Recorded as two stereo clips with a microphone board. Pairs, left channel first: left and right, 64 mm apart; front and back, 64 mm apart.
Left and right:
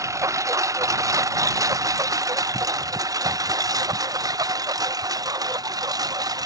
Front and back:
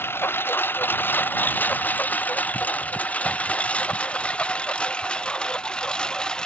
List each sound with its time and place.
0.0 s a lawn mower: 55° right; by 6.5 s 80° right